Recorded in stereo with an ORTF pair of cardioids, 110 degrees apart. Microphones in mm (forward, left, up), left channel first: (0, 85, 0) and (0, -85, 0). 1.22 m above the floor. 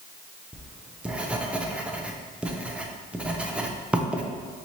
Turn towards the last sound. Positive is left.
turn(degrees=-5)